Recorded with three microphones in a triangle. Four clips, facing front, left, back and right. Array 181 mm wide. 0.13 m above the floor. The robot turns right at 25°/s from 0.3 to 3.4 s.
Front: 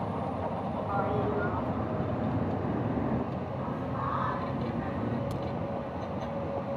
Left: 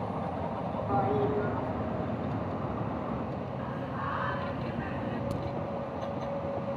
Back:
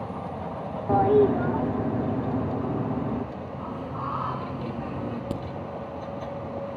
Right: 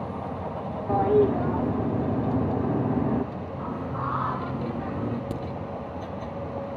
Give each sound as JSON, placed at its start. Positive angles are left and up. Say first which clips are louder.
{"t": 0.9, "sound": "a toilet flushing", "louder": "right 8 dB, back 12 dB", "azimuth_deg": -155, "distance_m": 4.0}
{"t": 3.6, "sound": "singing", "louder": "right 4 dB, back 2 dB", "azimuth_deg": -100, "distance_m": 1.1}
{"t": 5.3, "sound": "a crack", "louder": "right 2 dB, back 4 dB", "azimuth_deg": -155, "distance_m": 4.0}